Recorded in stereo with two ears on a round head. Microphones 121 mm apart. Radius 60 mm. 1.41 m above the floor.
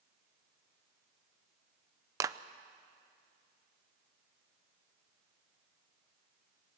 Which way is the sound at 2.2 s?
25° right (ahead or behind).